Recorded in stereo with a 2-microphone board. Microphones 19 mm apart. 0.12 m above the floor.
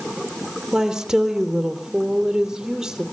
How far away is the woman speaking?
About 3 m.